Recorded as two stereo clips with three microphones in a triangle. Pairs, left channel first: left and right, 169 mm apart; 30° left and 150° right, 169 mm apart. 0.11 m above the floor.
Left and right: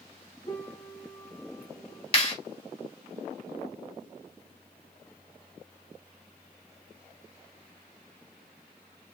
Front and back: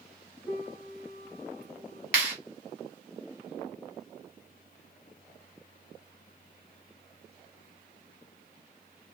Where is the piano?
125° left, 1.2 m.